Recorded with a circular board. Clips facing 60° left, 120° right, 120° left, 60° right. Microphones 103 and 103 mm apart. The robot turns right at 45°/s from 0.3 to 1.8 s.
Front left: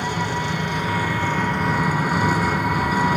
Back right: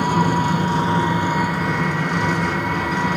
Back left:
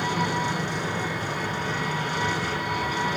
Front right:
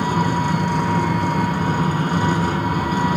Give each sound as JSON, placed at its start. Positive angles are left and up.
{"t": 0.0, "sound": "an engine running", "azimuth_deg": -90, "distance_m": 1.5}